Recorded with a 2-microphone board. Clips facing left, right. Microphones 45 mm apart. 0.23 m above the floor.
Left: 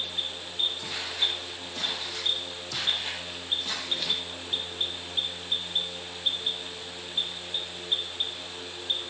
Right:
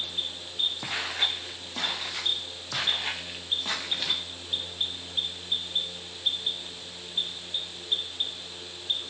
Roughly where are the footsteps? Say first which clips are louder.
Right 1 dB; right.